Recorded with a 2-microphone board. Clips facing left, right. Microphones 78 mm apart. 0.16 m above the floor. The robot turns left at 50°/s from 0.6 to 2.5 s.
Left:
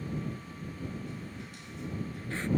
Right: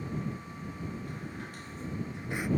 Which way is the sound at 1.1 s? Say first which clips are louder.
Right 2 dB; 95° right.